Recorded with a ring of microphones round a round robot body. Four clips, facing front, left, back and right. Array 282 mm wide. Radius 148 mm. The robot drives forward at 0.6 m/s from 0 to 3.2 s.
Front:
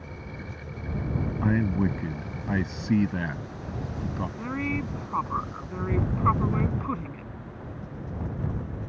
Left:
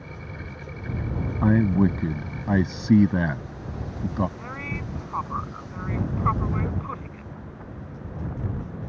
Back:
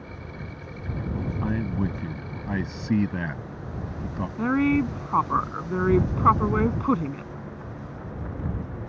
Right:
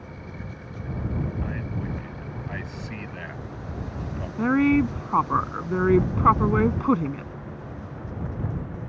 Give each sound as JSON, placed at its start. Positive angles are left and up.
{"t": 1.4, "sound": "a man speaking", "azimuth_deg": 80}
{"t": 4.4, "sound": "a woman speaking", "azimuth_deg": -125}